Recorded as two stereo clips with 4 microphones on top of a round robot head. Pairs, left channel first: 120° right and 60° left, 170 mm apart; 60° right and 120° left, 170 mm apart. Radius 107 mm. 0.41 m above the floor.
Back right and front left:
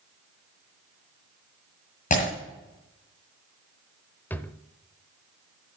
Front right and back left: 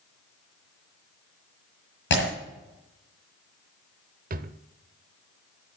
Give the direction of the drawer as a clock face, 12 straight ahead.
7 o'clock.